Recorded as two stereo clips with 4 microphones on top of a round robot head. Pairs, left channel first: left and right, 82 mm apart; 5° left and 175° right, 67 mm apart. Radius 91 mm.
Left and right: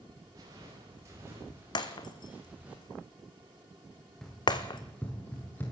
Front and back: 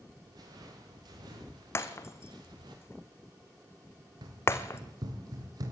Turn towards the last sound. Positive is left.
turn(degrees=160)